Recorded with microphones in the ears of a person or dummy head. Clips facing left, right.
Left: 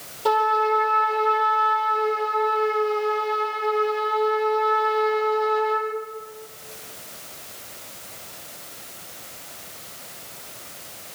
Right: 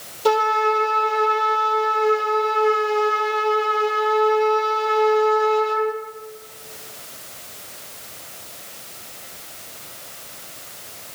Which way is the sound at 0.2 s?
30° right (ahead or behind).